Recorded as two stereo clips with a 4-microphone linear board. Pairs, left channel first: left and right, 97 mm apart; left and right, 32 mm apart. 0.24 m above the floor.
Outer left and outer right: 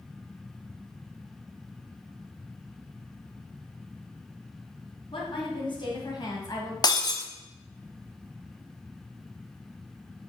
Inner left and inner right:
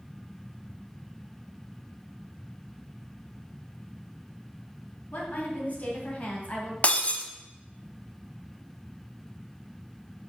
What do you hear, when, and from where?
5.1 s a woman speaking: 55° left (ahead or behind), 2.5 m; by 6.7 s 35° left (ahead or behind), 1.7 m
6.8 s breaking glass: 45° left (ahead or behind), 0.9 m